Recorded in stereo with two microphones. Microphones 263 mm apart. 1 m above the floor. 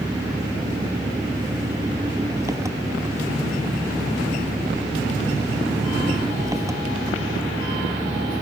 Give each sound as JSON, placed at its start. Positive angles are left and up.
{"t": 0.0, "sound": "an engine running", "side_deg": -10}